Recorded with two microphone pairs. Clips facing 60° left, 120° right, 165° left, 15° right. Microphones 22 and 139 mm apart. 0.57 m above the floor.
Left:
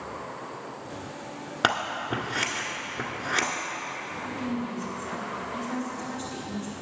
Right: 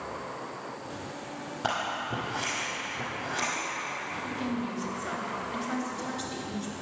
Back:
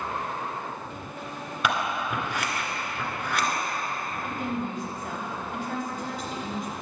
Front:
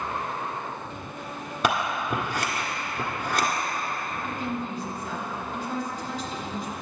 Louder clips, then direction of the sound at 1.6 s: Left 5 dB, front 2 dB; 40° left.